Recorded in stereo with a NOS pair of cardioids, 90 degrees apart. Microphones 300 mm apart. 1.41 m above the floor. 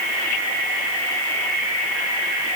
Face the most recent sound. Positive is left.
No sound to turn to.